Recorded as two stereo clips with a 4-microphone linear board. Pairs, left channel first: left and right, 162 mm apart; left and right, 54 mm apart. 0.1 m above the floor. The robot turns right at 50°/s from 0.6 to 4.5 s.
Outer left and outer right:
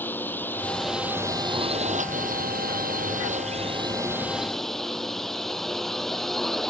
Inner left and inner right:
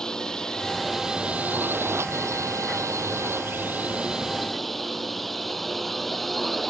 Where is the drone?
165° left; by 6.7 s straight ahead.